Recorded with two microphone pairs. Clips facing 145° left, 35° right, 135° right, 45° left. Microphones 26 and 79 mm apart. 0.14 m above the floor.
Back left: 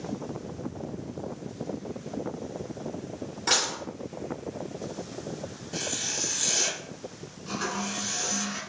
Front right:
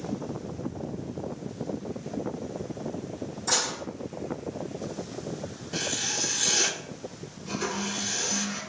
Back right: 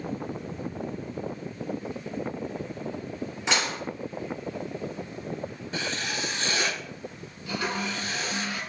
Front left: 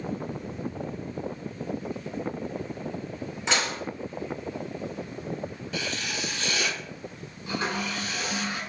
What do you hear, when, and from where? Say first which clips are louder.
3.5 s dishes clattering: back left 2 dB, even; 140° left, 2.0 m
5.7 s writing: front right 2 dB, back right 2 dB; 95° right, 0.6 m
7.5 s a toilet flushing: even, even; 90° left, 1.9 m